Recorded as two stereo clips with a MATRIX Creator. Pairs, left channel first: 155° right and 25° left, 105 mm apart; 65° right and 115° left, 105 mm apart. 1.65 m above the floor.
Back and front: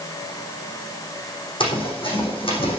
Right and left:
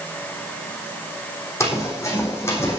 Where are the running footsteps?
130° right, 4.5 m; by 2.8 s 135° right, 5 m.